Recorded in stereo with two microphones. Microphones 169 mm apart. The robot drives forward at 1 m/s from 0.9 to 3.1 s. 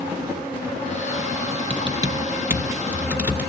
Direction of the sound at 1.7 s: 35° right (ahead or behind).